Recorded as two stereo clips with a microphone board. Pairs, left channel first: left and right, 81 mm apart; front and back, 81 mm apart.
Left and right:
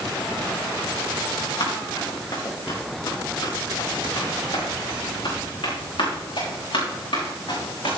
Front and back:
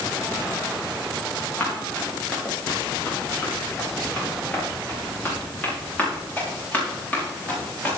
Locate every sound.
1.6 s running footsteps: 70° left, 7 m; by 8.0 s 75° left, 12.5 m